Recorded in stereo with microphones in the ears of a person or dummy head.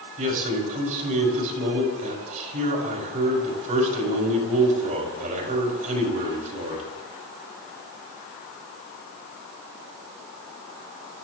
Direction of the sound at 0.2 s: 45° right (ahead or behind).